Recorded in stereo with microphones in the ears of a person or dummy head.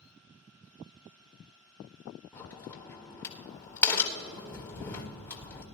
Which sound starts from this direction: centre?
A crack, at 2.3 s.